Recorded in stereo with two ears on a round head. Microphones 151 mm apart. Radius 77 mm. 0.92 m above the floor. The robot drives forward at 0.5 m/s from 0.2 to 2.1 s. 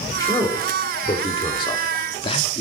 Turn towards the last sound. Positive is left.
turn(degrees=30)  # may be behind; listen again after turning